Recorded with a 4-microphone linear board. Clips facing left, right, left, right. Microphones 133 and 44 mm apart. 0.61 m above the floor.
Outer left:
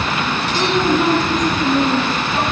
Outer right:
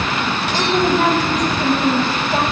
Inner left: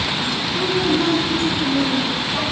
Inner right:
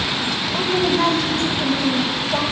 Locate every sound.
0.5 s a woman speaking: 75° right (ahead or behind), 4 m